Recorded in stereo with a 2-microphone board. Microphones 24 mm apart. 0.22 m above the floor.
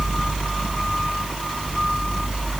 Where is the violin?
I don't hear a violin.